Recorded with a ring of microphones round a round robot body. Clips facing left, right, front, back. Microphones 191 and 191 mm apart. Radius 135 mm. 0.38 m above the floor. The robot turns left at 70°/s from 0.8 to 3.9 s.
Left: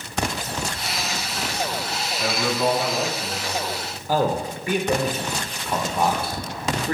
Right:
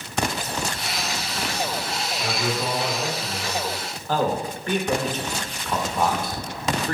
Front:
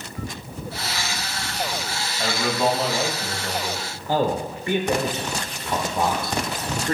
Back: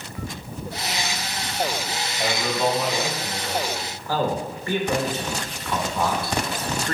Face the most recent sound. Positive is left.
turn(degrees=25)